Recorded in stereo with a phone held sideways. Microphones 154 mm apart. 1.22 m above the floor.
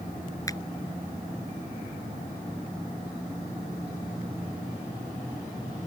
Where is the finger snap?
20° left (ahead or behind).